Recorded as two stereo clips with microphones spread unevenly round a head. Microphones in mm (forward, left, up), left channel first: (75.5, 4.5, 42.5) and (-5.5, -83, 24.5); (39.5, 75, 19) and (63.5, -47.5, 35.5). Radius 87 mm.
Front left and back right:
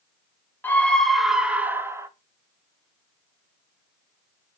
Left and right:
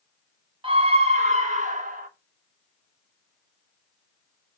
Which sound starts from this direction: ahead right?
A scream, at 0.6 s.